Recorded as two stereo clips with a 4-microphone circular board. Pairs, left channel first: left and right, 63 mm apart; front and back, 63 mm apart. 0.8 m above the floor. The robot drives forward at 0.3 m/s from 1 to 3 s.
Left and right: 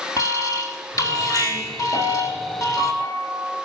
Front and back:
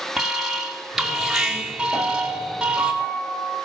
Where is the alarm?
95° left, 3.5 m; by 2.9 s 105° left, 3.5 m.